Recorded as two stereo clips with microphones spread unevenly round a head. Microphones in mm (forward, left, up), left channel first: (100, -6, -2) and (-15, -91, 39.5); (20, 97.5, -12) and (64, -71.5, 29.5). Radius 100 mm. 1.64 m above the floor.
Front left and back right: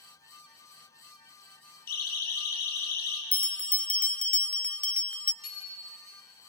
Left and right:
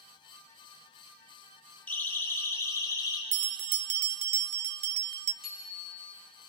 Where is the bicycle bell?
15° left, 9.5 m.